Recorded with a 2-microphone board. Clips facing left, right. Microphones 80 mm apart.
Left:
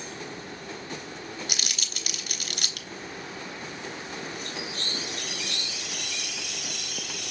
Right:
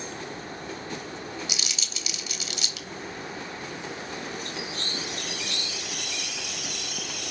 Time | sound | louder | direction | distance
1.5 | crumpling | even | 50° left (ahead or behind) | 0.8 m